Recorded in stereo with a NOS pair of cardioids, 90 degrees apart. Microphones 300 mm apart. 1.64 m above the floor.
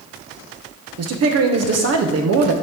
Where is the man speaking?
60° right, 1.2 m.